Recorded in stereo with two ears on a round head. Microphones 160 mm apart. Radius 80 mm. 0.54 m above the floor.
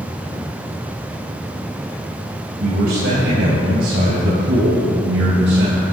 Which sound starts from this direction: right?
A man speaking, at 2.6 s.